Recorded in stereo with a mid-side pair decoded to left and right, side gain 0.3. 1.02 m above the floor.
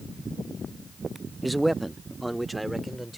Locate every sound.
1.4 s a man speaking: 15° right